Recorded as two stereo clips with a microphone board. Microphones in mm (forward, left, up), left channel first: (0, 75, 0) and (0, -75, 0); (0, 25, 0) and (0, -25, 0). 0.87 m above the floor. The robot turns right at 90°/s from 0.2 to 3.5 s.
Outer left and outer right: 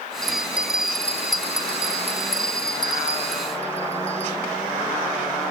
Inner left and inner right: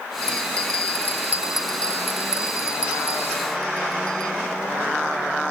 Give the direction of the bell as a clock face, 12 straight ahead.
4 o'clock.